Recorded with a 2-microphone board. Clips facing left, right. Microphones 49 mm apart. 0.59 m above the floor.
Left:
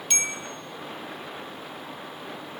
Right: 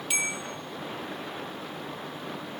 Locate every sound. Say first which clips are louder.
0.1 s a bell: even; 5° right (ahead or behind), 1.3 m